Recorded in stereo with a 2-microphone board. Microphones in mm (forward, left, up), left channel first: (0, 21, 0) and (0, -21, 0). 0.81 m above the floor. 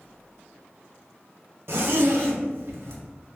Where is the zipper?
70° right (ahead or behind), 0.8 m.